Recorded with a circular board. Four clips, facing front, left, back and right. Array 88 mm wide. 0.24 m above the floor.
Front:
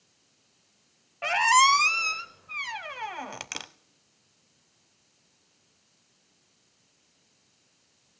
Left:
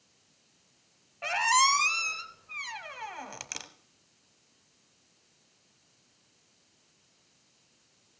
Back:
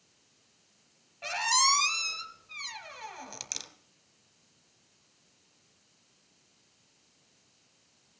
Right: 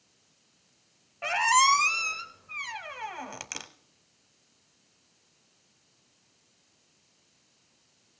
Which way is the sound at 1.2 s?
15° right.